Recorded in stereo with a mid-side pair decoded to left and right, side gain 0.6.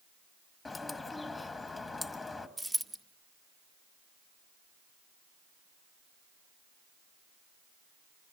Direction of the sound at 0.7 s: 15° left.